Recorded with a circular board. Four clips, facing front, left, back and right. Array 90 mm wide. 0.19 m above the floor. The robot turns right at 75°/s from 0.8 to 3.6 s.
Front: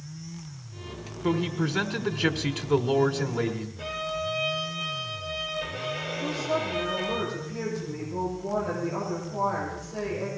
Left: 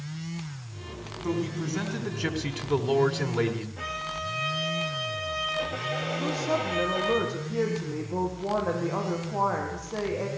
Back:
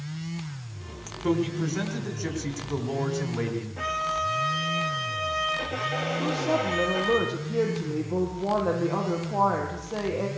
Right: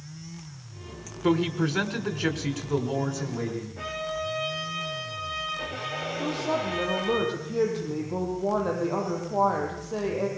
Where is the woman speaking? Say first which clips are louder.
Right 1 dB, back 2 dB; 140° right, 6 m.